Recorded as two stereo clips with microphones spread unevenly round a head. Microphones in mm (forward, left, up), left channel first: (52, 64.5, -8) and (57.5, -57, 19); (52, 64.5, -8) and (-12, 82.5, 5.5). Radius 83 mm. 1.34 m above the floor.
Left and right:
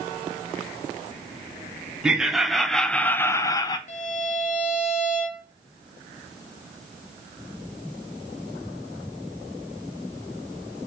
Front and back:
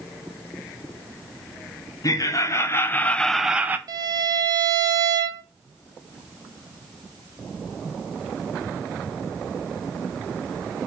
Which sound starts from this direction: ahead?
Laughter, at 2.0 s.